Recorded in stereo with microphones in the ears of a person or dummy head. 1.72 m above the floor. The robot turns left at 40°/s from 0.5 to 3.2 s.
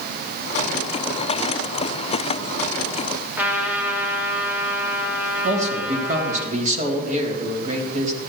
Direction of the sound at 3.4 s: 10° right (ahead or behind).